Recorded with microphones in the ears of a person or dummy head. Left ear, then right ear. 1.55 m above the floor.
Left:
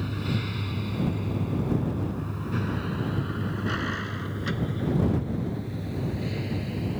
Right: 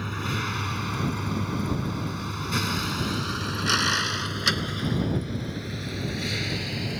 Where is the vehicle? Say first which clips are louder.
Right 3 dB; 40° right (ahead or behind); by 7.0 s 55° right (ahead or behind).